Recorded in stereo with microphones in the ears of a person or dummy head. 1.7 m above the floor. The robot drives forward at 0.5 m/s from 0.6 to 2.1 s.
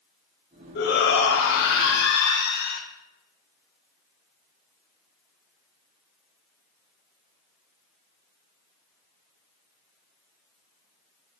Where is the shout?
65° left (ahead or behind), 0.9 m.